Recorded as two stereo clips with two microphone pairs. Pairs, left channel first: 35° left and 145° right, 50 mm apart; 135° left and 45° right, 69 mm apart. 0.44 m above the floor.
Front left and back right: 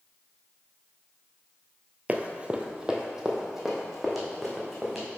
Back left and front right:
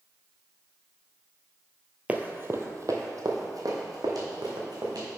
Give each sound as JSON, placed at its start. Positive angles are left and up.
{"t": 2.1, "sound": "running footsteps", "azimuth_deg": -105, "distance_m": 0.6}